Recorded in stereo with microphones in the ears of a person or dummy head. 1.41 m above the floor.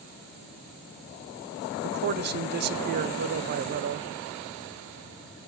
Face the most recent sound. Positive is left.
turn(degrees=-55)  # may be behind; listen again after turning